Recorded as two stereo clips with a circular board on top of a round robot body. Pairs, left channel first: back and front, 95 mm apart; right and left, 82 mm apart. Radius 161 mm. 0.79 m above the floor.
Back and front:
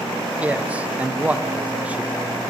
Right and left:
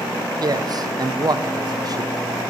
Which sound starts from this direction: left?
A man speaking, at 0.4 s.